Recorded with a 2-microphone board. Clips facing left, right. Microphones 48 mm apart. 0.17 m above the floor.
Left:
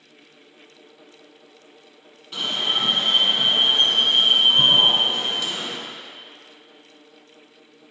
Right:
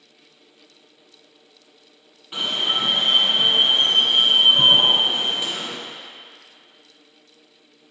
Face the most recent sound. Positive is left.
turn(degrees=-20)  # may be behind; listen again after turning